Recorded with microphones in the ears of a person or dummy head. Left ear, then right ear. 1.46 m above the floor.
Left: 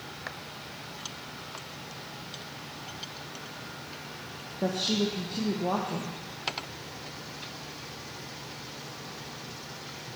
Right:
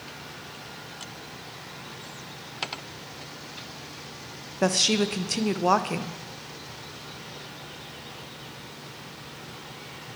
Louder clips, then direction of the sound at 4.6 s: Right 6 dB; 50° right (ahead or behind).